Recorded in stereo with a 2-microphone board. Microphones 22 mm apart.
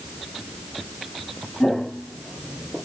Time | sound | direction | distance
1.6 | footsteps | 35° left (ahead or behind) | 1.4 m